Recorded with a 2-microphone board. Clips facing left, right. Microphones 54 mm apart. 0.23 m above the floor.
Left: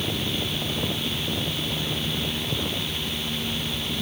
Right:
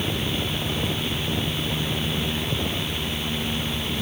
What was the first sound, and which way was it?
Only background noise.